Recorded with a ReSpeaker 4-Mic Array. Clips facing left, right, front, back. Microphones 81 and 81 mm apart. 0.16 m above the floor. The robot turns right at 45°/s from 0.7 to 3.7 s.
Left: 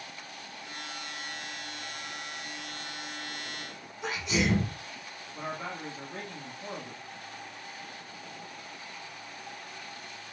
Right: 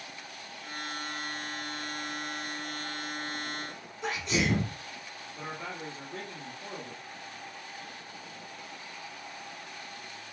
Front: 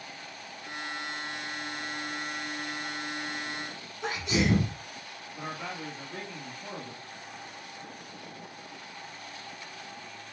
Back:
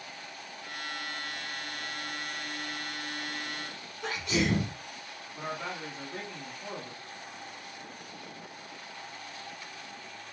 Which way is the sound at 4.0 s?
15° left.